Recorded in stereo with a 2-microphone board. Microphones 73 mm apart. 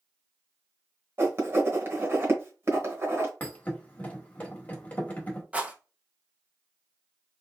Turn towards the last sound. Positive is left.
turn(degrees=-20)  # may be behind; listen again after turning